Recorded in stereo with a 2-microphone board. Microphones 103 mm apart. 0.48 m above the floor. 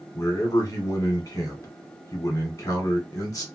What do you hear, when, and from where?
0.1 s a man speaking: 35° left (ahead or behind), 1.3 m